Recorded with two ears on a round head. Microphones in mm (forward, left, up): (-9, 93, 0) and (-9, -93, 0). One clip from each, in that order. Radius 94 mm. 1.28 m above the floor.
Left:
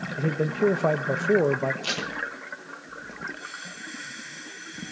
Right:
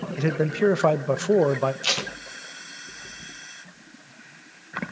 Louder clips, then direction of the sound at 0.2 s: Right 2 dB; 40° right (ahead or behind).